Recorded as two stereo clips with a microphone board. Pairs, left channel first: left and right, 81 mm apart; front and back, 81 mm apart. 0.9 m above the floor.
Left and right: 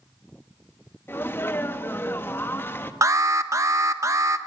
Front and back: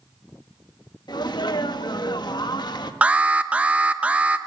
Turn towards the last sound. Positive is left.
turn(degrees=-115)